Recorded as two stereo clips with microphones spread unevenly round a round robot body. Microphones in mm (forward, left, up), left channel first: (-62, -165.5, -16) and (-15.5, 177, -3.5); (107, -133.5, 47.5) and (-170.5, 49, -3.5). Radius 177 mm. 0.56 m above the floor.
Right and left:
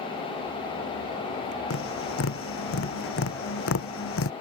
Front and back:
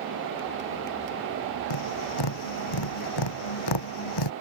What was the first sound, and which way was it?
Tapping, 40° right.